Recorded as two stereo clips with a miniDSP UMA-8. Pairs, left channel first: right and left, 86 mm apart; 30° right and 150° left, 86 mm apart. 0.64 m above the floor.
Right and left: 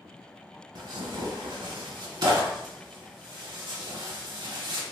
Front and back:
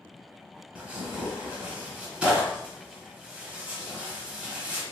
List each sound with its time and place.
0.8 s tearing paper: 75° left, 1.0 m